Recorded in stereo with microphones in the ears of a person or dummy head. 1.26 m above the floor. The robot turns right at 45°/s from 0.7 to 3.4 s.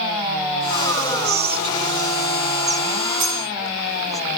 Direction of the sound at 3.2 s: 40° right (ahead or behind).